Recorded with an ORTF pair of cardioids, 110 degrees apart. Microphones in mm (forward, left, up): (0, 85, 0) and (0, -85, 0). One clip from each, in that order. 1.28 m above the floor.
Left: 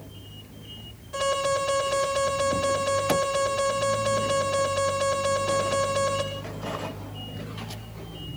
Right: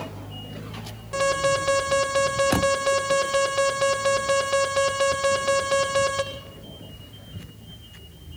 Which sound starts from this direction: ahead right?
An alarm, at 1.1 s.